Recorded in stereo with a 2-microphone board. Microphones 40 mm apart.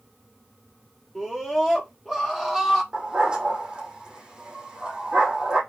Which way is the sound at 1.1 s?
5° right (ahead or behind).